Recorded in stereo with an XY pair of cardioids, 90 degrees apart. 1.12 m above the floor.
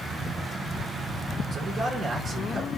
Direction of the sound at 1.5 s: 55° right.